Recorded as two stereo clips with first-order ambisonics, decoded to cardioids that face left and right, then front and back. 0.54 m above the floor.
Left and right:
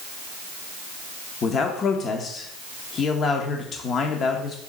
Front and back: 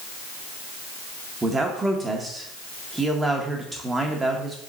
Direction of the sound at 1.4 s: 115° left.